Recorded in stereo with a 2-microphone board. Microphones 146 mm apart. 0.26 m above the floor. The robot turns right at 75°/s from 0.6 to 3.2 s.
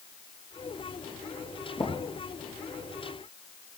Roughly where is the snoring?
I don't hear snoring.